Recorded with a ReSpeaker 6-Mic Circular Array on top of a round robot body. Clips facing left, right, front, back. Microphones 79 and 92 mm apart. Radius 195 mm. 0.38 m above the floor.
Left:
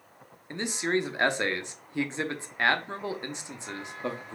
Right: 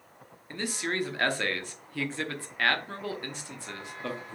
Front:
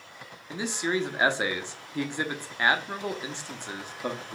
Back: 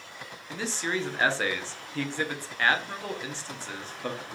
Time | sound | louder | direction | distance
0.5 | a man speaking | left 4 dB, front 2 dB | 55° left | 0.9 m